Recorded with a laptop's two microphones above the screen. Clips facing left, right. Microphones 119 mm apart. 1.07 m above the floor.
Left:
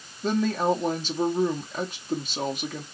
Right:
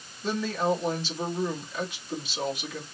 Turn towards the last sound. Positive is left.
turn(degrees=45)  # may be behind; listen again after turning